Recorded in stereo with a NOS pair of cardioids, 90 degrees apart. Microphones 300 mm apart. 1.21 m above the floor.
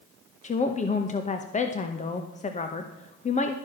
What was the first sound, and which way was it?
A woman speaking, 25° left.